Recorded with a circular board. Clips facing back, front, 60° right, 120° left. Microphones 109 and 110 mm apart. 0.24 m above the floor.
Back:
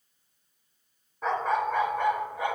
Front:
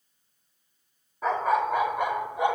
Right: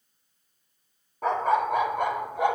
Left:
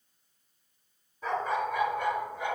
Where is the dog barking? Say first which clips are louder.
Front 2 dB, right 6 dB; 85° right, 3 m; by 2.6 s 70° right, 1.9 m.